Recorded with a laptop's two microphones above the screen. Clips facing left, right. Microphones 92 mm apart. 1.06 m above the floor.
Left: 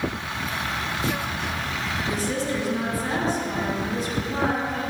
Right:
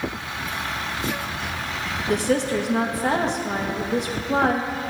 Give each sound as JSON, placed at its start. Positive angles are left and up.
{"t": 2.1, "sound": "a woman speaking", "side_deg": -70, "distance_m": 1.5}